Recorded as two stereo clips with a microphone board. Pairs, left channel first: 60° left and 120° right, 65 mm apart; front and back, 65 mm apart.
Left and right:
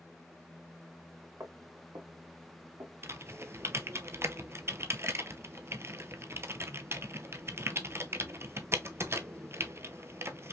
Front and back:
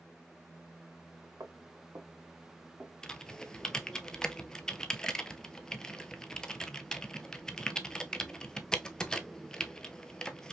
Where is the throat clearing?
I don't hear throat clearing.